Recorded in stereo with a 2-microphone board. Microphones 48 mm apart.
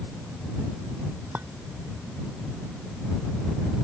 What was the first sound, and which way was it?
A clink, 45° right (ahead or behind).